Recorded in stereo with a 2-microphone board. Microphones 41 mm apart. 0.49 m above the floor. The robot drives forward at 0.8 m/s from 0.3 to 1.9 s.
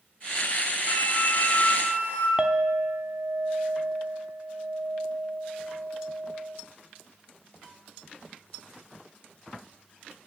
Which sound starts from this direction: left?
A flute, at 0.9 s.